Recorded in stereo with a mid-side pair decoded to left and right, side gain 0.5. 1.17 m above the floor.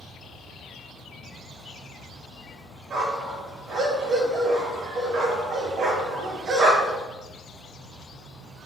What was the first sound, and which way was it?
A dog barking, 60° right.